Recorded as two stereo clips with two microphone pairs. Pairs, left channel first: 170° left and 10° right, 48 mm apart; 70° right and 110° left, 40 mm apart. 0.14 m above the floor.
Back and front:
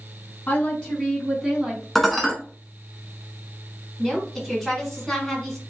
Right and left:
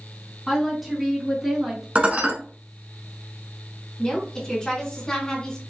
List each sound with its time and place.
0.5 s a woman speaking: 160° right, 1.6 m; by 1.9 s 45° left, 1.6 m
1.9 s dishes clattering: 85° left, 0.9 m
4.0 s a woman speaking: 110° right, 1.6 m